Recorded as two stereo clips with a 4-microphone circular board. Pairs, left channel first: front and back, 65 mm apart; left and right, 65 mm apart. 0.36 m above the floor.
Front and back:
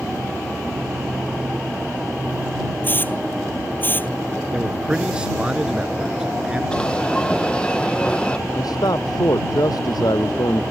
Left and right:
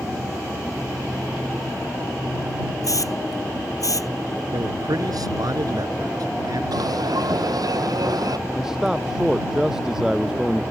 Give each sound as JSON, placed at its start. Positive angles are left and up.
{"t": 2.8, "sound": "a hiss", "azimuth_deg": 60}
{"t": 4.5, "sound": "a man speaking", "azimuth_deg": -100}
{"t": 6.7, "sound": "an alarm", "azimuth_deg": -75}
{"t": 8.5, "sound": "a man speaking", "azimuth_deg": -5}